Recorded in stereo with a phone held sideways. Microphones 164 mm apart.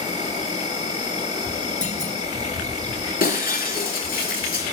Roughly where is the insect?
Left.